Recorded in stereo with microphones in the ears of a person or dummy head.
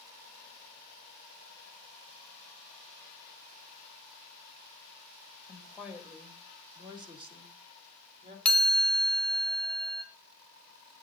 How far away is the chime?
About 1.3 m.